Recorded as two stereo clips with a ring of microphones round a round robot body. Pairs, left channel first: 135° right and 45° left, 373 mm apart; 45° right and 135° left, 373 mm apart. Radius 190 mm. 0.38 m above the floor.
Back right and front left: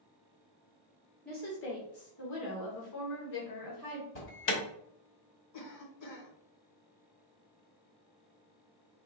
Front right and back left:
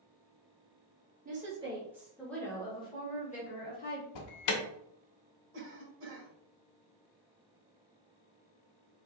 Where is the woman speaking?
Straight behind, 1.2 m; by 4.0 s 105° right, 1.9 m.